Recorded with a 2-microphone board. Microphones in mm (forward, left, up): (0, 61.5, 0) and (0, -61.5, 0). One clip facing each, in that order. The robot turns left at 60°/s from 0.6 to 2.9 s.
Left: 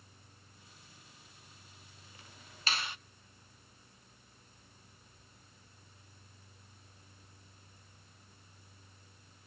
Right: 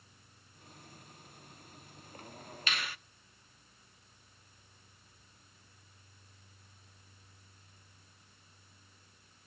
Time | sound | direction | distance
2.7 | a finger snap | 35° left (ahead or behind) | 0.8 m